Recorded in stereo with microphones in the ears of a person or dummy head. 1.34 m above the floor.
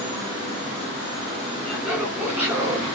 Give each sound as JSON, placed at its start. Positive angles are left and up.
{"t": 1.6, "sound": "laughter", "side_deg": 0, "distance_m": 3.0}